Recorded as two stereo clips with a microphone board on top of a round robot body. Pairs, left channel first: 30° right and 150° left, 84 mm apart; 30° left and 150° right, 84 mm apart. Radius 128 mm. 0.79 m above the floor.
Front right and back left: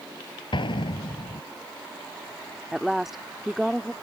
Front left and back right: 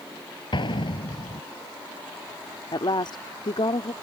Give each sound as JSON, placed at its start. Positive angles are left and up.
{"t": 0.5, "sound": "an explosion", "azimuth_deg": -5}
{"t": 2.7, "sound": "a woman speaking", "azimuth_deg": 65}